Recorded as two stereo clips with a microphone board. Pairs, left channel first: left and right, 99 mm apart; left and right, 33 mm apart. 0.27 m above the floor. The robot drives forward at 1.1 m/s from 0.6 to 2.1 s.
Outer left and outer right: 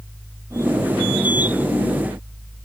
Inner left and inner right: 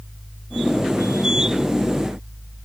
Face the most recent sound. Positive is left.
No sound to turn to.